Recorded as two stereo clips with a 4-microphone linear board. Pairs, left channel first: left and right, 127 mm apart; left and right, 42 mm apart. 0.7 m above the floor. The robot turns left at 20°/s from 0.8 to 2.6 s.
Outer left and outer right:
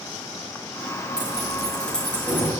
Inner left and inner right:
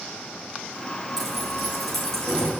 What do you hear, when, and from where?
1.2 s keys jangling: 10° right (ahead or behind), 8 m; by 2.5 s 20° left (ahead or behind), 8 m